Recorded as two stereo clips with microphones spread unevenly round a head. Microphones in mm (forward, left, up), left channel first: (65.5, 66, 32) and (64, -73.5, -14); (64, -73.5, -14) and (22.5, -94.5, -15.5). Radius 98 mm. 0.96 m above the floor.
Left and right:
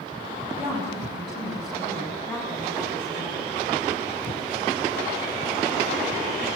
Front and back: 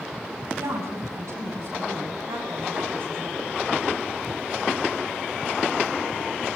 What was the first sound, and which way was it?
A woman speaking, 175° right.